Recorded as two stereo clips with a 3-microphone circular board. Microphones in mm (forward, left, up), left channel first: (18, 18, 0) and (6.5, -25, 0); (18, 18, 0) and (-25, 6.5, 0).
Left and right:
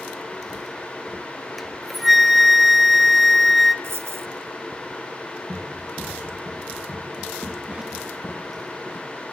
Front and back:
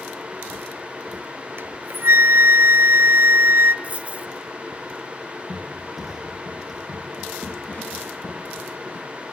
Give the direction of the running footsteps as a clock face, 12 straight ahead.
1 o'clock.